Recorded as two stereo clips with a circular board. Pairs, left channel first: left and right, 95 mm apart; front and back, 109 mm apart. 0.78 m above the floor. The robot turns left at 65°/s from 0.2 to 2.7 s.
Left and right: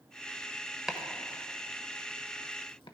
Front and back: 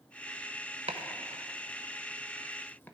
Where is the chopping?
170° right, 0.8 m; by 2.9 s 70° left, 0.8 m.